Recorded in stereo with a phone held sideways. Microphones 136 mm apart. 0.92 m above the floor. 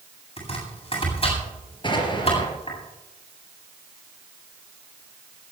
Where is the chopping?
45° left (ahead or behind), 8 m.